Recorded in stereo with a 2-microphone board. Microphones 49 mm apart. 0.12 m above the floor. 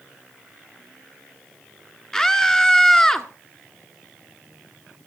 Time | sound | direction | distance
2.1 | a scream | 10° left (ahead or behind) | 1.6 m